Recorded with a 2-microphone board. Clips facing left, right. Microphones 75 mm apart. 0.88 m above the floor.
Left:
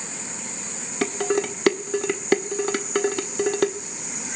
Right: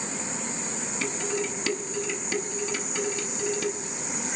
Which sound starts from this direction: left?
Dishes clattering, at 1.0 s.